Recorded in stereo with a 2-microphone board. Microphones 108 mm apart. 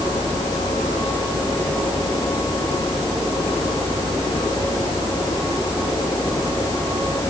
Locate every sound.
Only background noise.